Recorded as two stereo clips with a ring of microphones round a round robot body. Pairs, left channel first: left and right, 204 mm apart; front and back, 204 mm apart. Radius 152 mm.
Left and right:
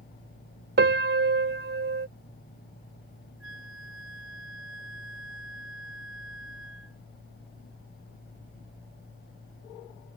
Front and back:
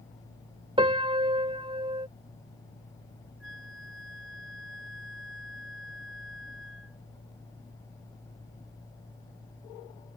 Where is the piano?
115° right.